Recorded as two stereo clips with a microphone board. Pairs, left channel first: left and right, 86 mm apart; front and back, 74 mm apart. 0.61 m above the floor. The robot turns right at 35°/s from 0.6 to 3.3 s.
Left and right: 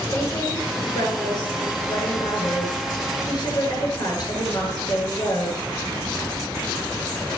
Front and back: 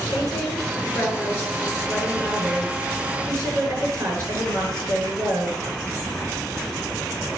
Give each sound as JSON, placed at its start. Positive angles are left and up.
{"t": 0.1, "sound": "a woman speaking", "azimuth_deg": 35, "distance_m": 8.0}